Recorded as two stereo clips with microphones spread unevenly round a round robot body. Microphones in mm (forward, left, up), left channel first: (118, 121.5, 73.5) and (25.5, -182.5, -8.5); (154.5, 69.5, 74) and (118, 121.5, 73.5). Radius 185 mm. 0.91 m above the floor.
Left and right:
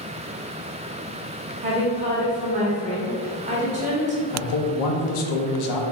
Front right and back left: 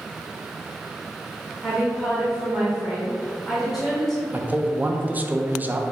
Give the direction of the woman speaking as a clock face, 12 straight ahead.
5 o'clock.